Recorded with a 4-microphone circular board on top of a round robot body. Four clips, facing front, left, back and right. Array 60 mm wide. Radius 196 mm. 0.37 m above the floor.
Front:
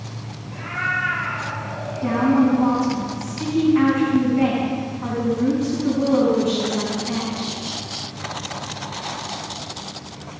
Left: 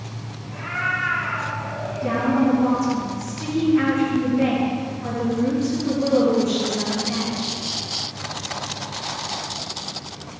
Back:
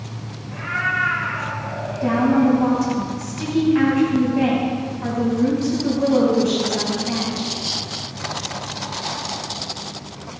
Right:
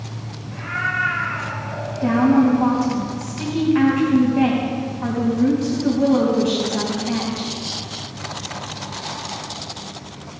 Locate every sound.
0.5 s a cat meowing: 165° right, 6 m; by 2.6 s 175° right, 5.5 m
2.0 s a woman speaking: 120° right, 4.5 m